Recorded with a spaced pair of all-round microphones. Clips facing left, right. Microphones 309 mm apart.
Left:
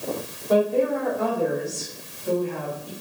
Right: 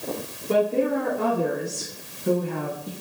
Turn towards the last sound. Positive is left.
turn(degrees=-55)  # may be behind; listen again after turning